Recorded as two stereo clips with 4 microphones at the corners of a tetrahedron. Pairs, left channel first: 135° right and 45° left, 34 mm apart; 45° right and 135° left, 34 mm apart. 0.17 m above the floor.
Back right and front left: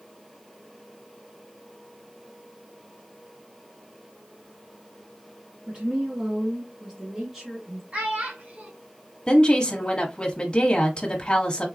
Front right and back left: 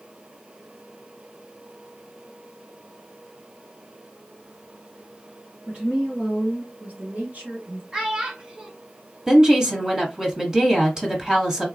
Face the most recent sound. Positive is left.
turn(degrees=-175)